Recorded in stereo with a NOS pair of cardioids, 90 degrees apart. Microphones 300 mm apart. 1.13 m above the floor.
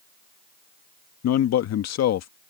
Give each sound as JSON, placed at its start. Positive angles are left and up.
{"t": 1.2, "sound": "a man speaking", "azimuth_deg": 65}